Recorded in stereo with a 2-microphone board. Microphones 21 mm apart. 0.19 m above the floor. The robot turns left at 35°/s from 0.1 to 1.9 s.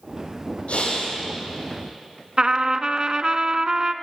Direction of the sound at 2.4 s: 45° right (ahead or behind).